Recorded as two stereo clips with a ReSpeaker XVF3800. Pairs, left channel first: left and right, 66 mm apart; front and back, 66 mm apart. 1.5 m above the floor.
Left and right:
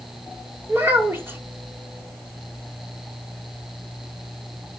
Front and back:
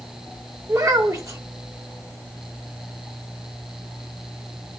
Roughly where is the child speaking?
Behind right.